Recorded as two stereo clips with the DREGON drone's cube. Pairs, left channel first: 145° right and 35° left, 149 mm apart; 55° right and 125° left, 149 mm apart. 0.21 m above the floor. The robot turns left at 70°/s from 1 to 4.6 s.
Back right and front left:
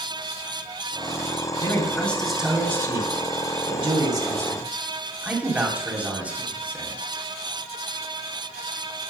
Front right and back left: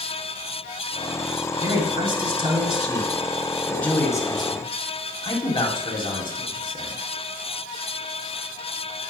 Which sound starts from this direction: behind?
A man speaking, at 1.6 s.